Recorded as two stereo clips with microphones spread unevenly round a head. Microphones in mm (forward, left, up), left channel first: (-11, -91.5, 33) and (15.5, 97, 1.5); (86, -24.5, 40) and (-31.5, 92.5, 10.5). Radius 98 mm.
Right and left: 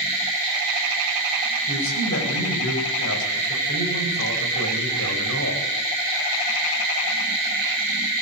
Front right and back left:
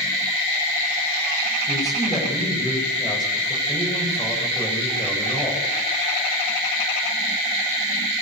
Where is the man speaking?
120° right, 9.5 m.